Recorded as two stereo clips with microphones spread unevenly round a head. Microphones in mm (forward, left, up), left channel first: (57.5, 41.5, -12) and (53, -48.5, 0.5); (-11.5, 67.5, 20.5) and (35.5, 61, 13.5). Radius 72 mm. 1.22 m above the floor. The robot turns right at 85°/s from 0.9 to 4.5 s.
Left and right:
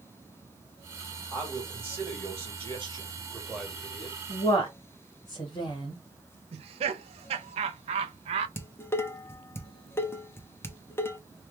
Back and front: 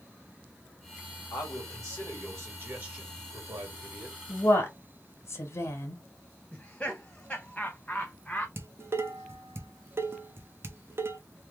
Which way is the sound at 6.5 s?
110° right.